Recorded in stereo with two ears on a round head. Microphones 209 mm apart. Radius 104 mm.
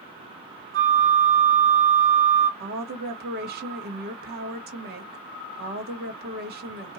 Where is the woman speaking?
40° right (ahead or behind), 1.0 m.